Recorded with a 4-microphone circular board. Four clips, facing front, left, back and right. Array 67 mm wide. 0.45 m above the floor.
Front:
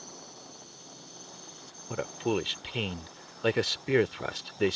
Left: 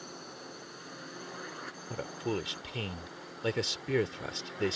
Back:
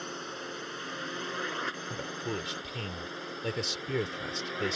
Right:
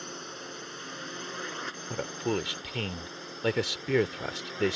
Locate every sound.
0.0 s a drone: 155° right; by 4.8 s 165° right
1.9 s a man speaking: 30° right